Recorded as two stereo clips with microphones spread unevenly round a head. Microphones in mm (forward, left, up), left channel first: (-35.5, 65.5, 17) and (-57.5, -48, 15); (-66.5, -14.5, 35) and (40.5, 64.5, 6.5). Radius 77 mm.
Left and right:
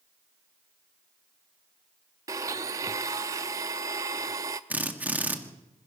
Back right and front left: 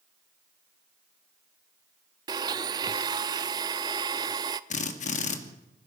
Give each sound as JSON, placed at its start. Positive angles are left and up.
{"t": 2.3, "sound": "a blender", "azimuth_deg": -35, "distance_m": 0.6}
{"t": 4.7, "sound": "a drill", "azimuth_deg": 180, "distance_m": 2.5}